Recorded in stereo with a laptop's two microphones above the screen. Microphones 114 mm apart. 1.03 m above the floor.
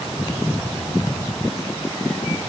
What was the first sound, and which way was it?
Only background noise.